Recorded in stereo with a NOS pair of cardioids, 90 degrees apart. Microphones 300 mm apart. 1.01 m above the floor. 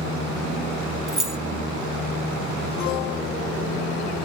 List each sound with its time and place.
1.1 s keys jangling: straight ahead, 0.9 m